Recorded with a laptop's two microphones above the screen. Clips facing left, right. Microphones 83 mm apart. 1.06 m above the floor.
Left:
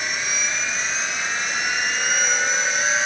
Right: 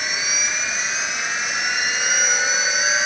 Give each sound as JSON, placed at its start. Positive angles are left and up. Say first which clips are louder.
{"t": 0.0, "sound": "a machine running", "louder": "even", "side_deg": -5}